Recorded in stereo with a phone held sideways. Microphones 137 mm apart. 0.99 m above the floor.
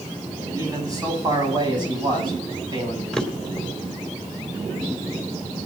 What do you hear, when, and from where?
0.5 s a man speaking: 25° right (ahead or behind), 9 m; by 3.0 s 35° right (ahead or behind), 8.5 m
3.1 s a drawer: 5° left (ahead or behind), 2.5 m